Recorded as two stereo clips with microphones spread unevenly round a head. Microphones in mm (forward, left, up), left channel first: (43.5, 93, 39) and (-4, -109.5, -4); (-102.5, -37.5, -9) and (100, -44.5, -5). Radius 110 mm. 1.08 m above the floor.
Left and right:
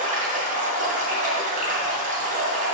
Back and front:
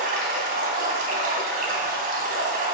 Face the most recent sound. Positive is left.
turn(degrees=-45)